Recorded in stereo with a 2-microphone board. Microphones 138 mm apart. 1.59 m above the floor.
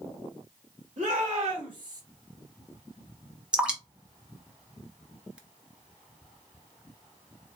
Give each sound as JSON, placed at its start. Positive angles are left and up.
{"t": 1.0, "sound": "a shout", "side_deg": -55, "distance_m": 2.0}
{"t": 3.5, "sound": "dripping", "side_deg": -5, "distance_m": 0.9}